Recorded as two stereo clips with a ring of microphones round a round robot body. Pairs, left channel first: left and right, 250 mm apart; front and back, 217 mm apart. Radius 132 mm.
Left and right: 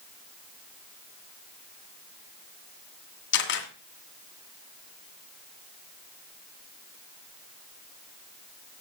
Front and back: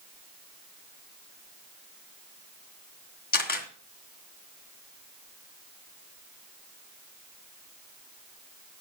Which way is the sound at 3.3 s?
45° left.